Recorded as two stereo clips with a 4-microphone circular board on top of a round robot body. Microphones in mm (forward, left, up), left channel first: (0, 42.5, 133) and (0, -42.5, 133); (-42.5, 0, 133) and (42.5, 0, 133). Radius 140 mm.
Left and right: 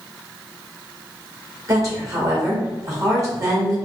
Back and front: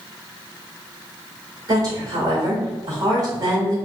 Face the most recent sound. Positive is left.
turn(degrees=-40)